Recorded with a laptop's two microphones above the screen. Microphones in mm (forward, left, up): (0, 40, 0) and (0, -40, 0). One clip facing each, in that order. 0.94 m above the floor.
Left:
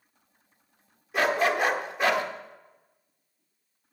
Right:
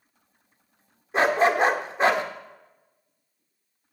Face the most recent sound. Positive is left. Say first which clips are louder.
# right 4 dB
turn(degrees=-30)  # may be behind; listen again after turning